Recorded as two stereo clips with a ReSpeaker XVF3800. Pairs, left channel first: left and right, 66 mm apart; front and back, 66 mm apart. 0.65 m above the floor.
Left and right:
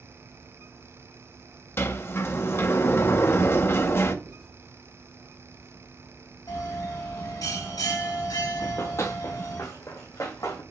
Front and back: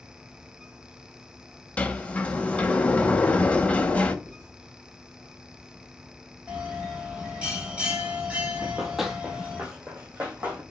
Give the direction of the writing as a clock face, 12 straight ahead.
3 o'clock.